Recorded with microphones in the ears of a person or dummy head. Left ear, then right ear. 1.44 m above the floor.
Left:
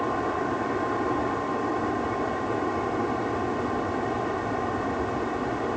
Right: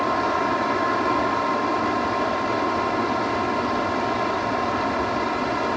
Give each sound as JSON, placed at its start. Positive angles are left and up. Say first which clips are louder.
{"t": 0.0, "sound": "a fan", "louder": "right 5 dB", "side_deg": -85}